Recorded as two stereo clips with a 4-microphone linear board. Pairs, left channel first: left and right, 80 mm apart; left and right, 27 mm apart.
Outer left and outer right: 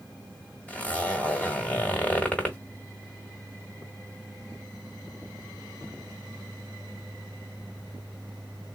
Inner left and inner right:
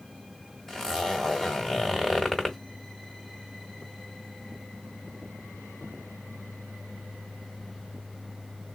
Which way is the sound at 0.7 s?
15° left (ahead or behind).